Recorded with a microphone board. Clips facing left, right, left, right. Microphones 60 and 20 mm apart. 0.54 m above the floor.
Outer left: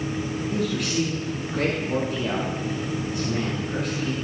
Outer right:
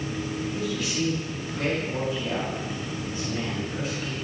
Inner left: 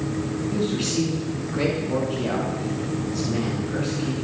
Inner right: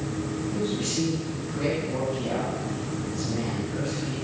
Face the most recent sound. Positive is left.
turn(degrees=75)  # may be behind; listen again after turning